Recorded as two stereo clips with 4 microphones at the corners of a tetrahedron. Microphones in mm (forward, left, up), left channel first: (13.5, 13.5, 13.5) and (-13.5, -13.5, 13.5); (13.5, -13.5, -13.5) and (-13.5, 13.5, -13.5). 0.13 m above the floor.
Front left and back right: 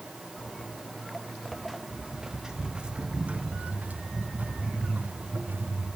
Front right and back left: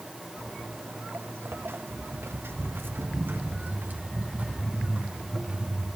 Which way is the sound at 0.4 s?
110° left.